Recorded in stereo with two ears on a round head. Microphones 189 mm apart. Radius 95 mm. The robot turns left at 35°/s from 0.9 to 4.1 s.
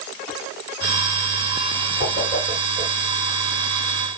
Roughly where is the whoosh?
Left.